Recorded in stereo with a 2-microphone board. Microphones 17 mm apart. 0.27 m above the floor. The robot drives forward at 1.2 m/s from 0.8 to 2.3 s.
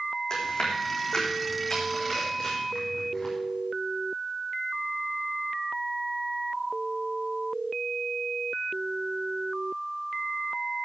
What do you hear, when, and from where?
0.3 s chewing: 50° left (ahead or behind), 4 m; by 3.3 s 35° left (ahead or behind), 5.5 m